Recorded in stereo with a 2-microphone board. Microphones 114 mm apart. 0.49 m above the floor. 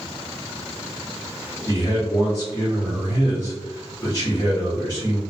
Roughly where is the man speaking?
Left.